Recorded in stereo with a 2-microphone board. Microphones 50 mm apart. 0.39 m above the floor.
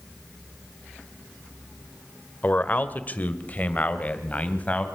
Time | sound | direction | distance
2.4 | a man speaking | 35° left (ahead or behind) | 1.2 m